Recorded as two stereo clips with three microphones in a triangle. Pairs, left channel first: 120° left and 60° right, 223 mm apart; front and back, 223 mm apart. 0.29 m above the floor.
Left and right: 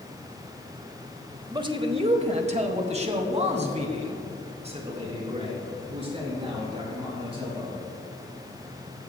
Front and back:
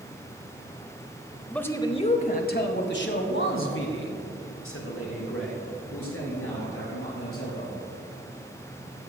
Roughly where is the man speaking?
Right.